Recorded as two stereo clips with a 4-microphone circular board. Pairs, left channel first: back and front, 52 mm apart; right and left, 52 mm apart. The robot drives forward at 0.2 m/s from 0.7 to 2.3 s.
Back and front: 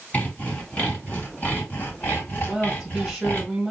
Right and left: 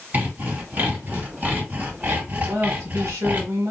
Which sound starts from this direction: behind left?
Sawing, at 0.1 s.